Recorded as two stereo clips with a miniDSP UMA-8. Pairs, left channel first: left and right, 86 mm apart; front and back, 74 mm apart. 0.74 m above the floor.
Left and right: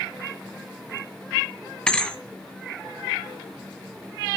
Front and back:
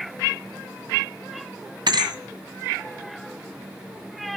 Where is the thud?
170° left, 2 m.